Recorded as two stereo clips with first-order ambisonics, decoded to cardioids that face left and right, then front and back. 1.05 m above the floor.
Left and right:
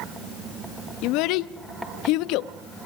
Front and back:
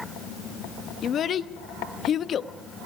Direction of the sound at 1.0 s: 60° left.